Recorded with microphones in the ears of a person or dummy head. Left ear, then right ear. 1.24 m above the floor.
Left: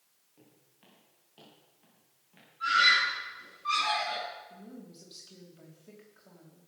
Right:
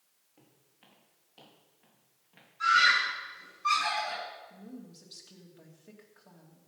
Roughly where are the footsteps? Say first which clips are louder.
Left 1 dB; right.